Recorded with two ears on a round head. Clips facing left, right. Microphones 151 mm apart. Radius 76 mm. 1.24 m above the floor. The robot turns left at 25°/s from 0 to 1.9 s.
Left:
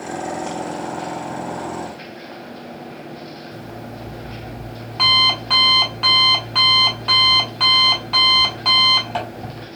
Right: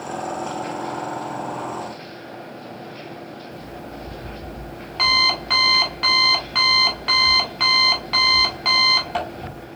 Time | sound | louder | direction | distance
3.5 | an alarm clock | left 1 dB | 5° right (ahead or behind) | 1.8 m